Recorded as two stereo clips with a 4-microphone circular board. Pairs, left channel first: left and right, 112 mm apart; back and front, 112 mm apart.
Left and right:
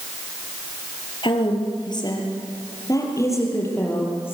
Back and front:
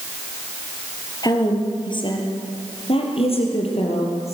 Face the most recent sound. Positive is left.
turn(degrees=160)